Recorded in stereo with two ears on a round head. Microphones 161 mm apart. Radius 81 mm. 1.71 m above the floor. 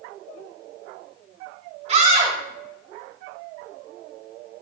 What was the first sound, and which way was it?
A scream, 40° right (ahead or behind).